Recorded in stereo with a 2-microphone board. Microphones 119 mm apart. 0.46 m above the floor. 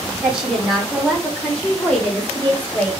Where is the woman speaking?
10° right (ahead or behind), 1.1 m; by 2.9 s 15° left (ahead or behind), 2 m.